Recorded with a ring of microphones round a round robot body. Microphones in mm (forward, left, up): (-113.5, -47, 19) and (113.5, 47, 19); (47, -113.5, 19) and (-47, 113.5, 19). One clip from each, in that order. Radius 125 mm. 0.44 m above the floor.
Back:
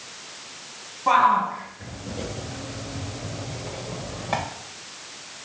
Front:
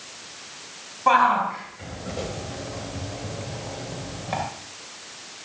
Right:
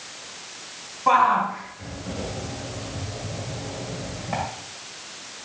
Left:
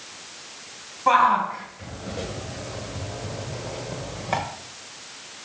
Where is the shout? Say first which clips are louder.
Even, even; 40° left, 3 m; by 4.4 s 130° left, 1.9 m.